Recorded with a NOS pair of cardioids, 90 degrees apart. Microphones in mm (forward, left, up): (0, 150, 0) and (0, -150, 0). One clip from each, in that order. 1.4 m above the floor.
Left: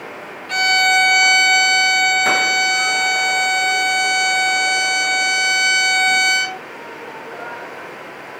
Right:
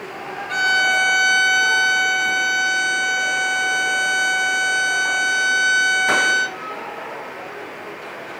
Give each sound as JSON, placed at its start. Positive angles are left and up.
{"t": 0.5, "sound": "a violin", "azimuth_deg": 50, "distance_m": 1.7}